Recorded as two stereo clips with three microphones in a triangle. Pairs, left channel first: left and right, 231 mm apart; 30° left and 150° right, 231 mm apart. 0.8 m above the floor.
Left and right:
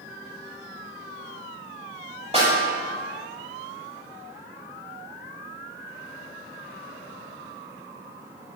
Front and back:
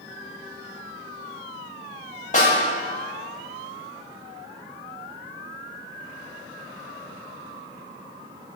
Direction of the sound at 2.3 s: 25° right.